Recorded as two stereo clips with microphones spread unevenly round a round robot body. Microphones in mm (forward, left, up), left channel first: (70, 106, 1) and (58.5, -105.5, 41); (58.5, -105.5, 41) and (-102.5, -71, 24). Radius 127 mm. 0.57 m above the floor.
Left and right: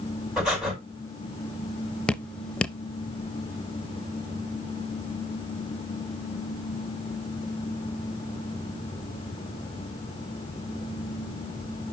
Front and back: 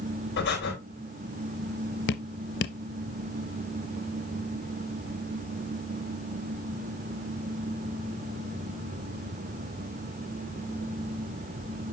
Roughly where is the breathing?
Ahead.